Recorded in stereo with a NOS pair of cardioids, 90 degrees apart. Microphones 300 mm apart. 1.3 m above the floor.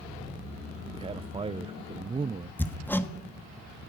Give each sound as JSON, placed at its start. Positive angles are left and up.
{"t": 0.9, "sound": "a man speaking", "azimuth_deg": -20, "distance_m": 0.7}
{"t": 2.6, "sound": "hammering", "azimuth_deg": 5, "distance_m": 1.8}